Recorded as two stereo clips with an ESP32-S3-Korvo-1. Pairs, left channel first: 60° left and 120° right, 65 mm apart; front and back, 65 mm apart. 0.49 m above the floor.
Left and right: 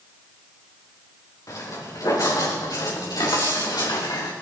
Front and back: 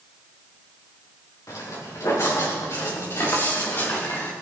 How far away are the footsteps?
About 5 m.